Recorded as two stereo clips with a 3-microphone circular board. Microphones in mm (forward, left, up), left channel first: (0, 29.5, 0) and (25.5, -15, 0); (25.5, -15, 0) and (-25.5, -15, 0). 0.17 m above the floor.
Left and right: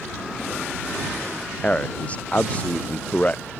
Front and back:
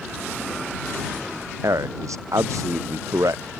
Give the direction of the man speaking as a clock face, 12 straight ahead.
6 o'clock.